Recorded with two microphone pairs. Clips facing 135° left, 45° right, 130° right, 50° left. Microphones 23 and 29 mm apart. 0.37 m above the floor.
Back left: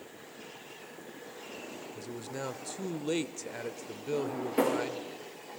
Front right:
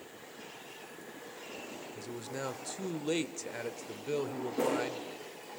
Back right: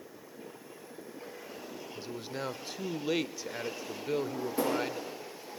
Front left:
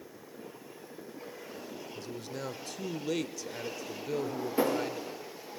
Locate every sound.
1.9 s a man speaking: 130° right, 1.0 m
4.1 s a drawer: 115° left, 9 m